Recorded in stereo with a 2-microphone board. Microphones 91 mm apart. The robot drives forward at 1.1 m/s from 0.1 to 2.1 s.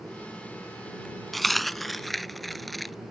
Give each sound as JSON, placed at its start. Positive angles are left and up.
{"t": 1.3, "sound": "a dropped coin", "side_deg": 0}